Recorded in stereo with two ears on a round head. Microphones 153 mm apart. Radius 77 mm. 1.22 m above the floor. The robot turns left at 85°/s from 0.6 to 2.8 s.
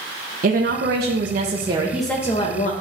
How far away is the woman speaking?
About 1.0 m.